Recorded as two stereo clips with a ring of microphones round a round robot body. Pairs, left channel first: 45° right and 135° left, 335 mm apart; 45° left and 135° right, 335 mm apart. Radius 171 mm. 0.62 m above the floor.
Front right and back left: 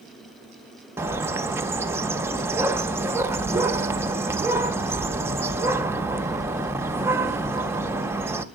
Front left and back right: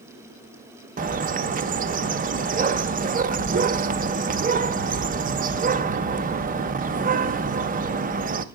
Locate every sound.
1.0 s a bird: 150° right, 0.5 m